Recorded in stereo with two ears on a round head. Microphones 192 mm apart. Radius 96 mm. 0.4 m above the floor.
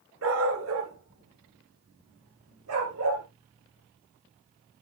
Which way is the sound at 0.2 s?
70° right (ahead or behind).